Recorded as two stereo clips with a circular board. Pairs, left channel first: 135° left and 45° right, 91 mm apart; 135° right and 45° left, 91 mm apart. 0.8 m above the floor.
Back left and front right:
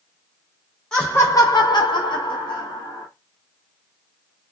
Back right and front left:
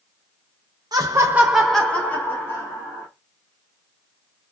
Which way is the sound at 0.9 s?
55° left.